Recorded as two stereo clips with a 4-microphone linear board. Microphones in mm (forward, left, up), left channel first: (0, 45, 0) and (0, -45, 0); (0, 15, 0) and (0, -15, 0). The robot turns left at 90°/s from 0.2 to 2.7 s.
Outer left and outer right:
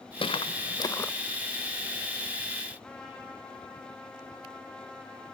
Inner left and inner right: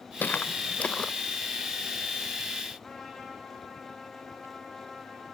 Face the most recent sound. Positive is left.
turn(degrees=10)  # may be behind; listen again after turning